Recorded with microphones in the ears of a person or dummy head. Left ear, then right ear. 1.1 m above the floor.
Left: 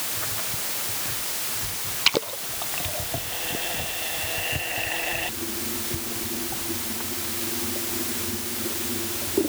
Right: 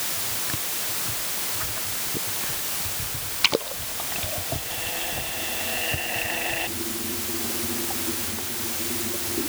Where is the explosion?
No explosion in this recording.